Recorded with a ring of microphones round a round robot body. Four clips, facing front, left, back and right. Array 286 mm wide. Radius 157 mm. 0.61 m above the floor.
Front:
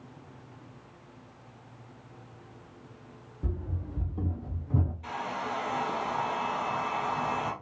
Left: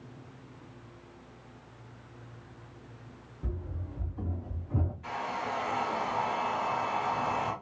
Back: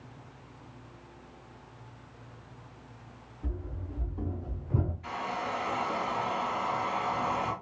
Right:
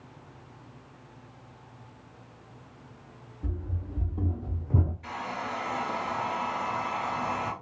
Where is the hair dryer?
35° right, 1.4 m.